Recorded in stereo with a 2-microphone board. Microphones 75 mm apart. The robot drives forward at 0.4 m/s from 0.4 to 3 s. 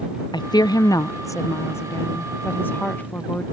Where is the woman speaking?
65° left (ahead or behind); by 3.4 s 25° left (ahead or behind).